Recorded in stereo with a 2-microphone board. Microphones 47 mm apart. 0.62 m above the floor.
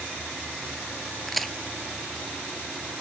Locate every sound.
1.3 s a crack: 5° left (ahead or behind)